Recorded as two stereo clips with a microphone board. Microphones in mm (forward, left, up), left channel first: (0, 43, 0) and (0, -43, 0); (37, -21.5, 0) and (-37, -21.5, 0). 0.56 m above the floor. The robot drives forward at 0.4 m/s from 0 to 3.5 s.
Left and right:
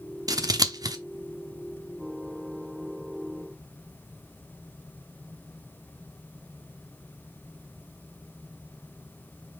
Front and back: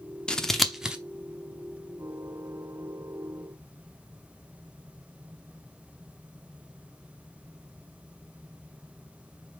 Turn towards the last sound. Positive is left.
turn(degrees=-155)